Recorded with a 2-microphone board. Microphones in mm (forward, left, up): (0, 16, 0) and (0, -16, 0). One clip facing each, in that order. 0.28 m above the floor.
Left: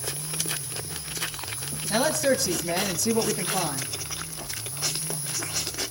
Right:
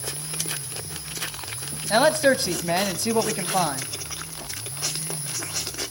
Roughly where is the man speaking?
Right.